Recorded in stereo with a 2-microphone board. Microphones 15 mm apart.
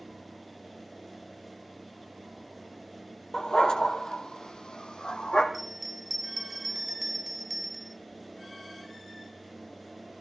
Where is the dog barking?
50° left (ahead or behind), 2 m; by 5.4 s 75° left (ahead or behind), 3.5 m.